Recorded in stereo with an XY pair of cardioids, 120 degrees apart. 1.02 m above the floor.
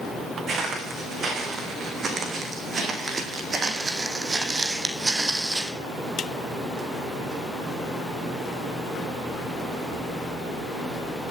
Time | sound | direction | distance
0.5 | footsteps | 45° right | 5 m